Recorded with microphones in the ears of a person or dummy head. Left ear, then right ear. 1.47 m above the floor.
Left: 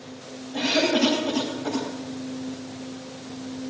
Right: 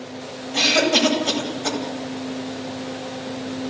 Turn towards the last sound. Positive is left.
turn(degrees=-85)